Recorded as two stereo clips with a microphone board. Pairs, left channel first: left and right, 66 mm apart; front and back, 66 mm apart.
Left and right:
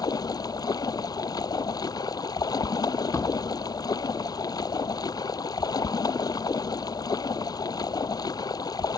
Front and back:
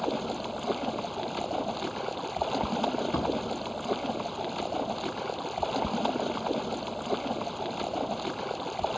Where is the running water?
90° left.